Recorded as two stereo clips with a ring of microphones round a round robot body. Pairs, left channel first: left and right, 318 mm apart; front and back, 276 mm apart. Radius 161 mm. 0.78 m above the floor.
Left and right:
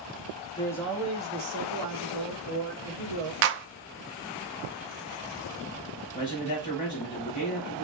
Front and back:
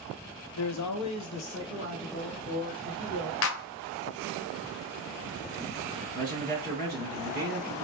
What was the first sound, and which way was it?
A man speaking, 20° left.